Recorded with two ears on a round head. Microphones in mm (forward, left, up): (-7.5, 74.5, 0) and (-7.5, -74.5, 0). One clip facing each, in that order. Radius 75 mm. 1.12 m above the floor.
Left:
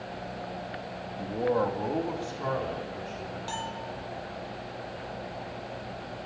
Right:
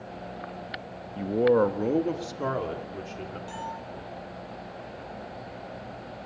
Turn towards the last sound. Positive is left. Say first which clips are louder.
# left 1 dB
turn(degrees=65)  # may be behind; listen again after turning